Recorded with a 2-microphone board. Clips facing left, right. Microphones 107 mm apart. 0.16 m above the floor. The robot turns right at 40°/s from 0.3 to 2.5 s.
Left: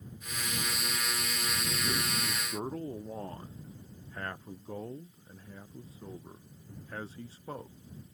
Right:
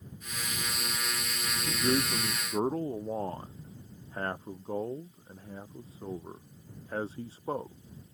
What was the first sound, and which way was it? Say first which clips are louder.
A man speaking: right 9 dB; 70° right.